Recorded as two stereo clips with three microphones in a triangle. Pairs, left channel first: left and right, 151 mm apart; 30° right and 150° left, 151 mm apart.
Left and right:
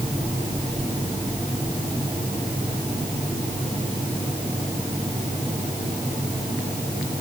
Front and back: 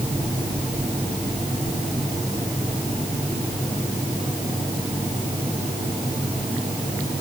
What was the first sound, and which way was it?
Only background noise.